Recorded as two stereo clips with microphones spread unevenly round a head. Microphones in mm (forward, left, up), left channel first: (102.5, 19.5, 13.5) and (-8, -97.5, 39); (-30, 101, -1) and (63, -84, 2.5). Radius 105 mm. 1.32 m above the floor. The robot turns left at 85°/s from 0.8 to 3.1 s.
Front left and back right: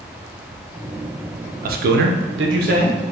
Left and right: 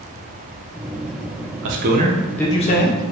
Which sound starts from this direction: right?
A man speaking, at 1.6 s.